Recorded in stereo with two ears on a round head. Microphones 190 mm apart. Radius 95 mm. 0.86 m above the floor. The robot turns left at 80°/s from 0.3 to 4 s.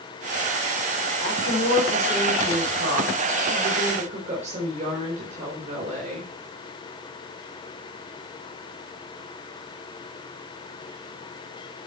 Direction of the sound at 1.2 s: 80° left.